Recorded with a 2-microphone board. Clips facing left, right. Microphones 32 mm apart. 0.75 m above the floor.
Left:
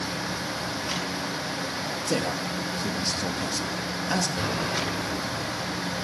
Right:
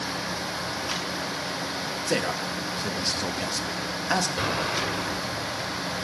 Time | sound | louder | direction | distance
2.1 | a man speaking | right 1 dB | 25° right (ahead or behind) | 1.3 m
4.4 | an explosion | right 1 dB | 25° right (ahead or behind) | 2.5 m